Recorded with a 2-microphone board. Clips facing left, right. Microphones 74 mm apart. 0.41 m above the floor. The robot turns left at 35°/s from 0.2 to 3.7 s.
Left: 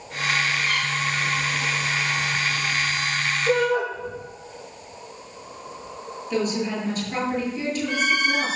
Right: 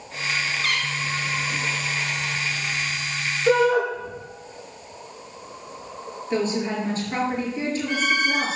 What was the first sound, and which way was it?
A cat meowing, 75° right.